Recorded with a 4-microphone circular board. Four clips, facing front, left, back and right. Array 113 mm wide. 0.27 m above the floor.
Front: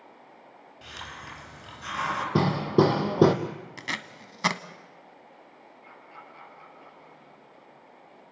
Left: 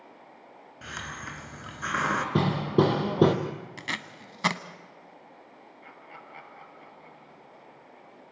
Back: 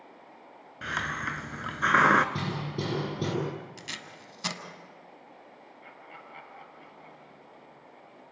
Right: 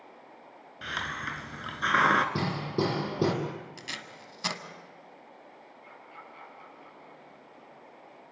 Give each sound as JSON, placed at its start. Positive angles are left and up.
{"t": 0.8, "sound": "a hiss", "azimuth_deg": -165, "distance_m": 1.4}
{"t": 2.4, "sound": "hammering", "azimuth_deg": 25, "distance_m": 2.5}
{"t": 3.8, "sound": "tape being pulled", "azimuth_deg": 40, "distance_m": 1.2}
{"t": 5.8, "sound": "laughter", "azimuth_deg": 120, "distance_m": 6.0}